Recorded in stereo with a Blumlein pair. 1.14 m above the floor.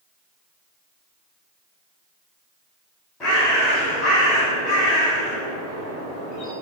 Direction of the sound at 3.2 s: 20° left.